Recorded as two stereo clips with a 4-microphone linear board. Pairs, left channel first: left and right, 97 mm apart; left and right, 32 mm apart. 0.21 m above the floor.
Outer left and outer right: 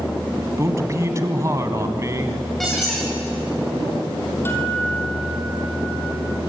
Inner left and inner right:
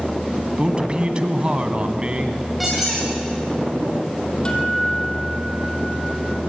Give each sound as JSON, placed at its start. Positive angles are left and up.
{"t": 0.6, "sound": "a man speaking", "side_deg": -30, "distance_m": 2.0}
{"t": 2.6, "sound": "a squeak", "side_deg": 0, "distance_m": 7.5}
{"t": 4.5, "sound": "a guitar", "side_deg": 25, "distance_m": 4.5}